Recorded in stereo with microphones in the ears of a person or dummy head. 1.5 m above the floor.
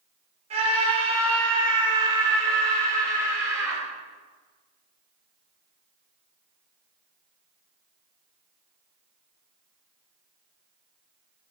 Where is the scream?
45° right (ahead or behind), 4.5 m; by 3.8 s 20° right (ahead or behind), 5.5 m.